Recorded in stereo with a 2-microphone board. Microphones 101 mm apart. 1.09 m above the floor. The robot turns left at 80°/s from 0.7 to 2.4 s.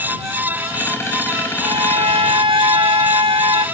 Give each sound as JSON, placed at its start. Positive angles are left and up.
{"t": 1.6, "sound": "a violin", "azimuth_deg": -60}